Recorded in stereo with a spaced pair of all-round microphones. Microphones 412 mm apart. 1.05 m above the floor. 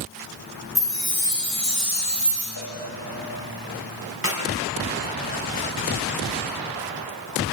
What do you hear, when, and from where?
0.8 s a chime: 60° right (ahead or behind), 7 m
2.6 s a cowbell: 45° right (ahead or behind), 3 m
4.2 s a clap: 35° right (ahead or behind), 6 m